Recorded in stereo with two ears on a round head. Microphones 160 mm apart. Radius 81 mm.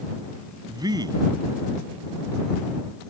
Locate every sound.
0.7 s a man speaking: 25° right (ahead or behind)